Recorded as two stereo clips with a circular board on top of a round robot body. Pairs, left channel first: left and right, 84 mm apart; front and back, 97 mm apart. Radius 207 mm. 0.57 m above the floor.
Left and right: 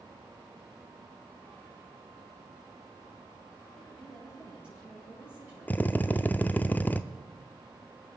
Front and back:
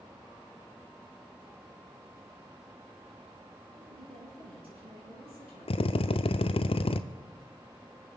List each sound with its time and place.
3.8 s a woman speaking: 170° right, 7.5 m; by 6.6 s 160° right, 8.5 m
5.7 s a drill: 20° left, 0.6 m